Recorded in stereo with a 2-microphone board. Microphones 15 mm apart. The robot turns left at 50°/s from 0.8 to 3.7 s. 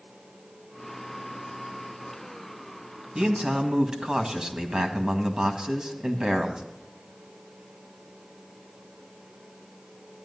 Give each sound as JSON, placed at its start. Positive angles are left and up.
{"t": 3.1, "sound": "a man speaking", "side_deg": -75, "distance_m": 1.8}